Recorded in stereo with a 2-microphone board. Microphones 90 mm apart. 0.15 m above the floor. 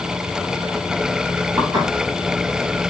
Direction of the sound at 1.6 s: 50° right (ahead or behind).